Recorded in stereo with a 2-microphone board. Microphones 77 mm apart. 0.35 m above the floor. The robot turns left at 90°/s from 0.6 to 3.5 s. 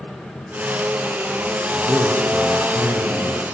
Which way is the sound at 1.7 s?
170° right.